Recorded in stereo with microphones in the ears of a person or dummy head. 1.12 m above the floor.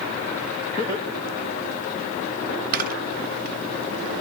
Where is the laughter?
25° left (ahead or behind), 2 m; by 2.1 s centre (ahead or behind), 1.8 m.